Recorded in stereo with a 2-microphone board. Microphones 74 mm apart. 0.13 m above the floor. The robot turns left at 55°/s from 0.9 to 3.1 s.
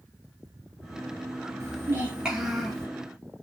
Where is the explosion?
I don't hear an explosion.